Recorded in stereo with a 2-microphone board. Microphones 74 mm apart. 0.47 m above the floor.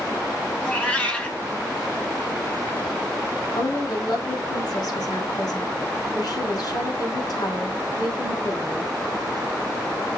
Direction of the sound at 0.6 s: 20° left (ahead or behind).